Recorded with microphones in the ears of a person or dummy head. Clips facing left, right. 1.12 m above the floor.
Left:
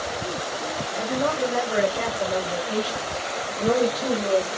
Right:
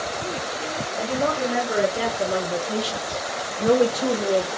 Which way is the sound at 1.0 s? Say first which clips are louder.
Even; 25° right (ahead or behind).